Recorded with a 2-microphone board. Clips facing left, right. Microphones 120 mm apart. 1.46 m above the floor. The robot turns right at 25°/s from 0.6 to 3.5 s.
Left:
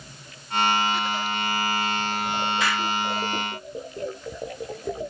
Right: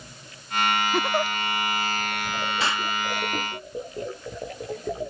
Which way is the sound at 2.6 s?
30° right (ahead or behind).